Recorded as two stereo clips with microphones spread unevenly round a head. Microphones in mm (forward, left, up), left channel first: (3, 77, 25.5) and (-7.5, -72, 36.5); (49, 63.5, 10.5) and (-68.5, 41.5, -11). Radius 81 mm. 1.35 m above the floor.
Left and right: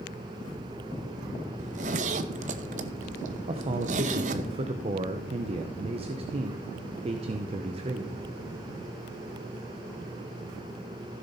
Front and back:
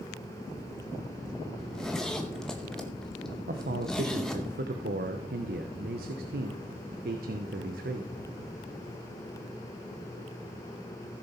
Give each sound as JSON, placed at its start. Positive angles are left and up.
{"t": 1.6, "sound": "a zipper", "azimuth_deg": -65, "distance_m": 0.7}
{"t": 3.5, "sound": "a man speaking", "azimuth_deg": -150, "distance_m": 0.7}